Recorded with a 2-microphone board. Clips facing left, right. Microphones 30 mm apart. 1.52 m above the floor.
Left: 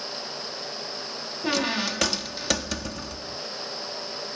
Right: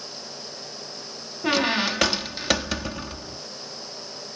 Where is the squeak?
25° right (ahead or behind).